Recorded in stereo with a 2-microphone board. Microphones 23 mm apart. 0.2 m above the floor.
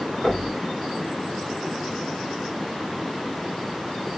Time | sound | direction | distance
0.2 | knocking | 20° left (ahead or behind) | 4.5 m